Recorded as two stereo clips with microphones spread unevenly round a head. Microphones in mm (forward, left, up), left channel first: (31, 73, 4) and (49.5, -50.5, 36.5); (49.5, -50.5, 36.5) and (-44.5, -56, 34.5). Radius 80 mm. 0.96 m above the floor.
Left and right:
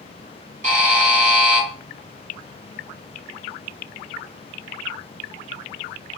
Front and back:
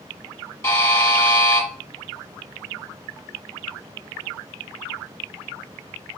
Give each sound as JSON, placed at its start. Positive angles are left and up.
{"t": 0.6, "sound": "a buzzer", "azimuth_deg": -55, "distance_m": 4.0}